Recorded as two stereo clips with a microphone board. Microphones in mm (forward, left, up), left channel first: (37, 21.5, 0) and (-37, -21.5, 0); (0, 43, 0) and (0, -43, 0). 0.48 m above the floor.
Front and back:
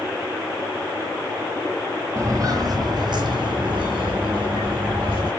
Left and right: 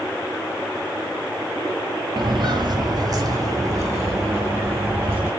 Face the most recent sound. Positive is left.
turn(degrees=-150)